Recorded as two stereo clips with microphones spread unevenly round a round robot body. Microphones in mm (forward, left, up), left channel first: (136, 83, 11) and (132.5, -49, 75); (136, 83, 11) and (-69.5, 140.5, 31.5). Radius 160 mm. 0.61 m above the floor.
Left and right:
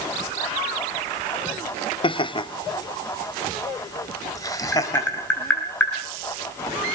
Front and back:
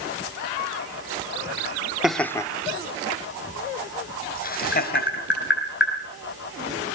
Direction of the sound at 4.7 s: 15° left.